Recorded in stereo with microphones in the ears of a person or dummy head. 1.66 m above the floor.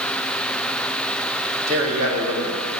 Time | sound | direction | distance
1.7 | a man speaking | 80° right | 4 m